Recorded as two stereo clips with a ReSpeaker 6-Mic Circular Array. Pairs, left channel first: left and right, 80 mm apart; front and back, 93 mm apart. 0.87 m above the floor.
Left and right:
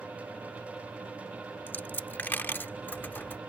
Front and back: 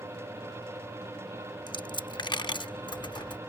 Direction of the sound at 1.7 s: 25° left.